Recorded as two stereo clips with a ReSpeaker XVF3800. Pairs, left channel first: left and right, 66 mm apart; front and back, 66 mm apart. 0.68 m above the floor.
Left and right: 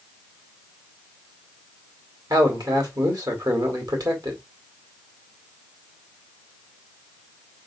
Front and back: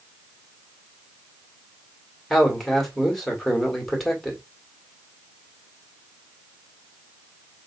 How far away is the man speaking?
About 2 m.